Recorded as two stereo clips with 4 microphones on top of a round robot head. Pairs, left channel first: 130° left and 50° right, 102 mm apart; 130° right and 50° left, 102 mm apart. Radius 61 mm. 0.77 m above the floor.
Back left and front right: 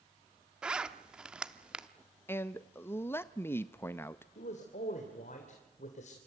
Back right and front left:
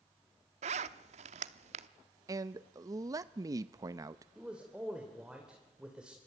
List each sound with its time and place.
0.6 s a zipper: 30° left, 0.8 m
2.3 s a man speaking: 75° left, 0.6 m
4.3 s a man speaking: 135° left, 2.5 m